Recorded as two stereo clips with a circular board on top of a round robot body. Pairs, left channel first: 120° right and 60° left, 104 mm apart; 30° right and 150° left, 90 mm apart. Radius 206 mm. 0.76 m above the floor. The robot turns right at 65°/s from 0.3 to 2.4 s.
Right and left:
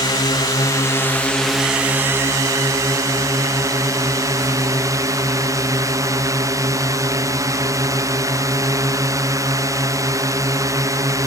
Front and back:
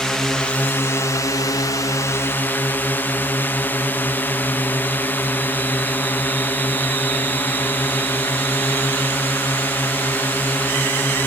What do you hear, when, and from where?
0.0 s a drone: 110° right; by 11.3 s 25° left